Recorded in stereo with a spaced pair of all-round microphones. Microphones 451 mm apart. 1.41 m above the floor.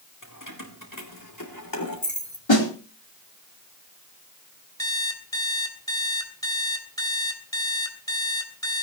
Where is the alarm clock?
10° left (ahead or behind), 3 m.